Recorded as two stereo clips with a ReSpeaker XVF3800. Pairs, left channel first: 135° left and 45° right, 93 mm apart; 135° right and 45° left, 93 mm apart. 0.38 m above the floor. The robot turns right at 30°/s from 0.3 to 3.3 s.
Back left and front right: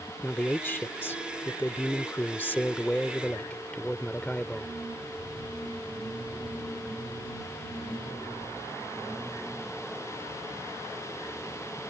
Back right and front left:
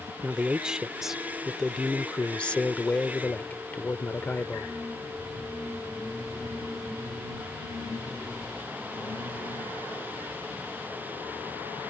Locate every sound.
0.2 s a man speaking: 100° left; by 4.7 s 170° right